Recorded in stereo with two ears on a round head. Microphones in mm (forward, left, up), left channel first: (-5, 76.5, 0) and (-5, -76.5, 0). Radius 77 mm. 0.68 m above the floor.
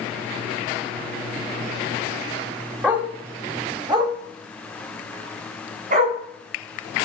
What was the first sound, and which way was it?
A dog barking, 10° right (ahead or behind).